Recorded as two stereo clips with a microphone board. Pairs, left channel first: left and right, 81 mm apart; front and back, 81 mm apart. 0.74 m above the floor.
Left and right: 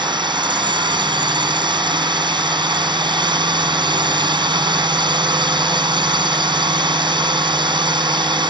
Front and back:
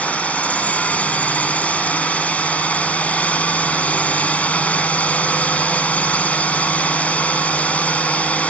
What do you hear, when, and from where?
0.0 s a drone: 75° right